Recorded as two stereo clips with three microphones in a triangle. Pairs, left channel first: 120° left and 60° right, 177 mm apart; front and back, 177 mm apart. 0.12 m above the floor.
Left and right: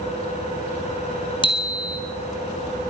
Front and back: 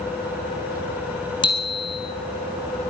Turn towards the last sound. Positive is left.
turn(degrees=60)